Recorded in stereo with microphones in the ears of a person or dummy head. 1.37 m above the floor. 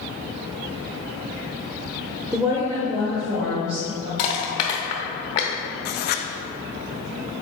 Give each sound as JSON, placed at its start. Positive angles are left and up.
{"t": 2.3, "sound": "a woman speaking", "side_deg": -10, "distance_m": 0.8}
{"t": 4.2, "sound": "crushing", "side_deg": 30, "distance_m": 0.9}
{"t": 5.8, "sound": "writing", "side_deg": 50, "distance_m": 0.6}